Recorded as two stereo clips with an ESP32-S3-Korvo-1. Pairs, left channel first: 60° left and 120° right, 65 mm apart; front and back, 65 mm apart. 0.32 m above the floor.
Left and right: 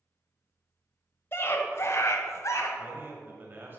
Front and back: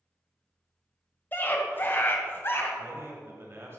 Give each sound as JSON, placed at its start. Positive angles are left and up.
{"t": 1.3, "sound": "a scream", "azimuth_deg": 40, "distance_m": 1.3}
{"t": 2.8, "sound": "a man speaking", "azimuth_deg": -155, "distance_m": 1.4}